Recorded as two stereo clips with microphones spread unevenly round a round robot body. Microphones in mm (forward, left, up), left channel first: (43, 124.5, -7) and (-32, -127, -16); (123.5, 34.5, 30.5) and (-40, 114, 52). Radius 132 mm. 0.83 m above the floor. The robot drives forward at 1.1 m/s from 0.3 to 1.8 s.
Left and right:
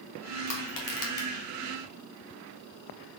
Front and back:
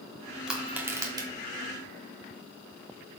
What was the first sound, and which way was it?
Crushing, 65° left.